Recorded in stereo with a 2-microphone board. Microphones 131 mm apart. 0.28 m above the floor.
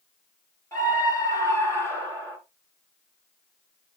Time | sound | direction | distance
0.7 | a scream | 25° left (ahead or behind) | 4 m